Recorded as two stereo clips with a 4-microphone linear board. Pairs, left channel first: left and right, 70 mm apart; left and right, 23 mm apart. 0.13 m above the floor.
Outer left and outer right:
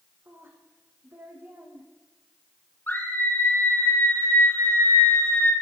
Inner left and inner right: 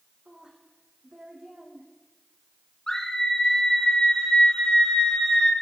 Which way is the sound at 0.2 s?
30° right (ahead or behind).